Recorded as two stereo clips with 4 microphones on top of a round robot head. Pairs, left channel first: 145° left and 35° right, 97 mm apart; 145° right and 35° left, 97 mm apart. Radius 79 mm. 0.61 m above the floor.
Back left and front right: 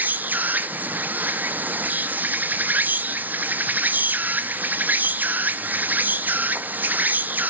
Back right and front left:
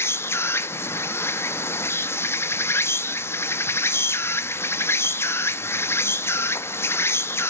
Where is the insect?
95° right, 0.7 m.